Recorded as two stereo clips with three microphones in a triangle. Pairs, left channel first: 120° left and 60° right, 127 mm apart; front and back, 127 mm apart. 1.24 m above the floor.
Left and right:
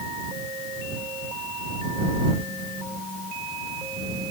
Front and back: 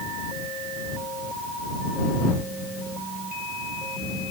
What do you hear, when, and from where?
Only background noise.